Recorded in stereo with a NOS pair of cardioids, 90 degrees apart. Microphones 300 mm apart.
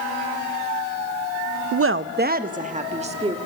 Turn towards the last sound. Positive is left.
turn(degrees=-20)